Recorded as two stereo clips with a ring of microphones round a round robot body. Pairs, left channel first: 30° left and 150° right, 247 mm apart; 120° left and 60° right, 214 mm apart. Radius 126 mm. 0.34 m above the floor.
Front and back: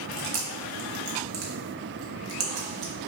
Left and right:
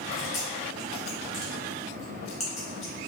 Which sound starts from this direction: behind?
Chewing, at 0.1 s.